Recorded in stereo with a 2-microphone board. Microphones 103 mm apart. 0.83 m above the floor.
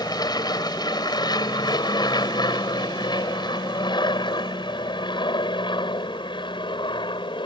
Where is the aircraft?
45° left (ahead or behind); by 7.5 s 60° left (ahead or behind).